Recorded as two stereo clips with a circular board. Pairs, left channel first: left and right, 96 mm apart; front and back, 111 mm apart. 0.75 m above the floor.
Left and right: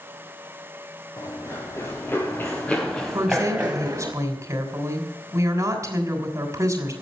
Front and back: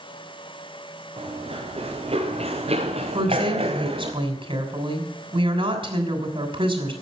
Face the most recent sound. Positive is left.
turn(degrees=-150)